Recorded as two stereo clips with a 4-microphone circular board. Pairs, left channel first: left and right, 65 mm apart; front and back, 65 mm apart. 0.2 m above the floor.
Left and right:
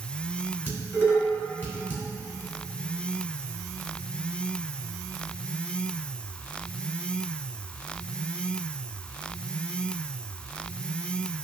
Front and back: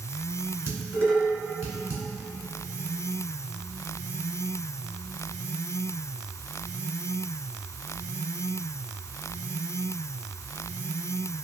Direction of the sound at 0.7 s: 140° left.